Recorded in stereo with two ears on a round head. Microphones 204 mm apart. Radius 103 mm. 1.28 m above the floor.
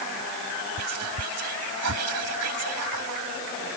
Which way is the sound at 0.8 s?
70° right (ahead or behind).